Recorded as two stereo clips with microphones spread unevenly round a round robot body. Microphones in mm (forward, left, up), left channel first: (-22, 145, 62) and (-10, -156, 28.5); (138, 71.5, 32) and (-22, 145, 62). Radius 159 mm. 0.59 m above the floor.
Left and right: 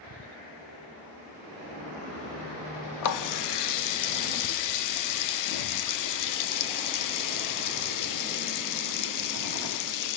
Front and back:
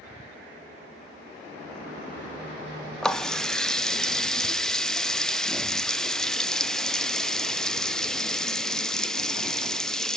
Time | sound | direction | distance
3.0 | a running tap | 60° left | 0.8 m